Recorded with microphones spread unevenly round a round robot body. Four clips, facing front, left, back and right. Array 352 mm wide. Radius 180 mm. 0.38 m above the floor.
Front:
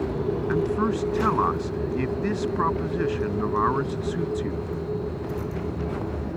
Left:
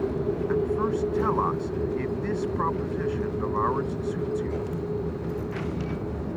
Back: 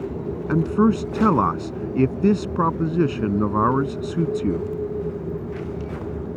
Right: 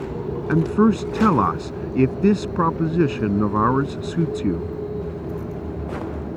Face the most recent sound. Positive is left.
turn(degrees=-125)